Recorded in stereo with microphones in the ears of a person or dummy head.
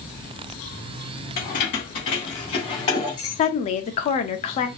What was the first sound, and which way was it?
Keys jangling, 30° left (ahead or behind).